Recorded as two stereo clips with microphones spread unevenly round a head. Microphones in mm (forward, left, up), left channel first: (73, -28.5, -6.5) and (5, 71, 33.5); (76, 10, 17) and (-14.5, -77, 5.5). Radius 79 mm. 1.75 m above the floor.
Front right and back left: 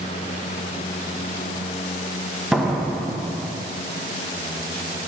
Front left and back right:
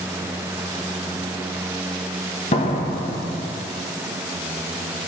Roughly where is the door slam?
Ahead left.